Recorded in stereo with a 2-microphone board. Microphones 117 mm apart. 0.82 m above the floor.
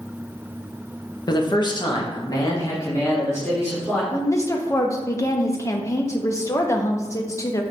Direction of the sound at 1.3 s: 35° left (ahead or behind).